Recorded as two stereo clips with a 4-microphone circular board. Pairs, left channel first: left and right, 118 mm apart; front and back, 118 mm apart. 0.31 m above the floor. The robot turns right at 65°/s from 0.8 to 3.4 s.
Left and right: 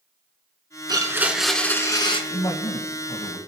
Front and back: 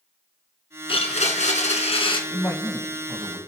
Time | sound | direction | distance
0.9 | a blender | 40° right | 1.9 m
2.3 | a man speaking | 50° left | 2 m